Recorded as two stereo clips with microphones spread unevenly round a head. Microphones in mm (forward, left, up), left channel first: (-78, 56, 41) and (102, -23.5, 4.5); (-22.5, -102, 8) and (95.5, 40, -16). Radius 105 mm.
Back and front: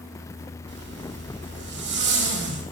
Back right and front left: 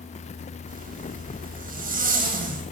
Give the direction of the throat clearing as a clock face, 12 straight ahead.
No throat clearing in this recording.